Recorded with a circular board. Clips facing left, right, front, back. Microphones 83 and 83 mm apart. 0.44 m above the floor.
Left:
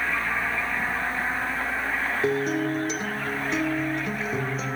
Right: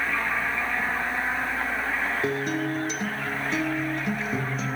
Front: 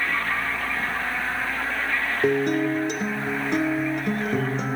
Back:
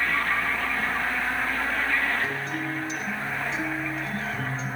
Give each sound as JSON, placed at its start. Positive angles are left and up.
{"t": 2.2, "sound": "a guitar", "azimuth_deg": 0, "distance_m": 3.5}